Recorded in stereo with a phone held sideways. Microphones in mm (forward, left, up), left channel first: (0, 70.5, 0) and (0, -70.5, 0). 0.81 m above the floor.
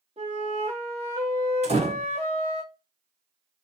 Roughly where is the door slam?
Right.